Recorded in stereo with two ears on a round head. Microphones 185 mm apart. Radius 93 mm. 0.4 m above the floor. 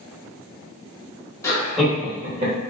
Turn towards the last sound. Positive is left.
turn(degrees=-40)  # may be behind; listen again after turning